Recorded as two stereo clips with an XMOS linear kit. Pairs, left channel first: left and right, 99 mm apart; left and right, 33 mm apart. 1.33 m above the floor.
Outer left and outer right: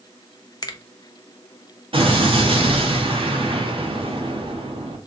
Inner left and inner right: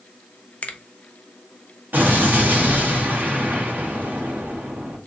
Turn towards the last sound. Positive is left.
turn(degrees=-65)  # may be behind; listen again after turning